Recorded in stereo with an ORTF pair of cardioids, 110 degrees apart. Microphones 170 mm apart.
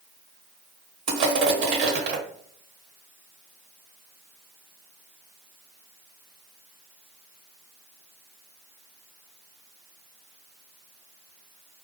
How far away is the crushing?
About 1.2 m.